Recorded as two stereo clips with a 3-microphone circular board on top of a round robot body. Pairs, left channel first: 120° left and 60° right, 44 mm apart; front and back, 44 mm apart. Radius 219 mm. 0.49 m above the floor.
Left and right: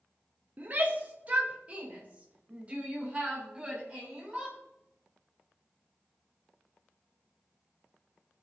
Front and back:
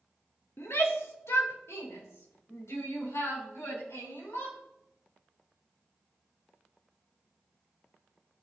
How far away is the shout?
About 2.5 m.